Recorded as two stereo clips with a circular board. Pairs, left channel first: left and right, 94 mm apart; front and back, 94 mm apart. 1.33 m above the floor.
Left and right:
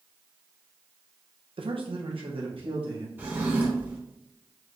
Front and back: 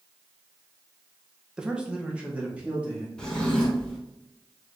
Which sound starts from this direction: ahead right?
A drawer, at 3.2 s.